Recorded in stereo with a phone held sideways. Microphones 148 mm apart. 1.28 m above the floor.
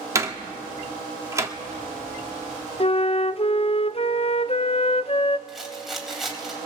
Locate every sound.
0.1 s a door slam: 20° right (ahead or behind), 1.7 m
2.8 s a flute: 45° left (ahead or behind), 0.5 m
5.5 s a rattle: centre (ahead or behind), 3 m